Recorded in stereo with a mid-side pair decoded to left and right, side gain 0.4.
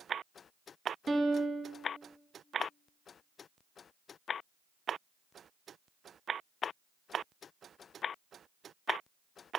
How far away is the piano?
About 1.2 m.